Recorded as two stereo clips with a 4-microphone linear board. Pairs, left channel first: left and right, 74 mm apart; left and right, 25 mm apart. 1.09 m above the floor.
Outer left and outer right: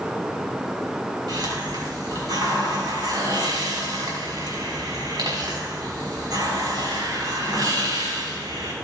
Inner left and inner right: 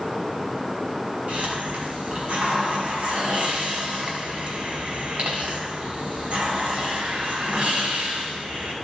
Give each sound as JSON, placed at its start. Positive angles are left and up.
{"t": 1.3, "sound": "a hiss", "side_deg": -55, "distance_m": 4.5}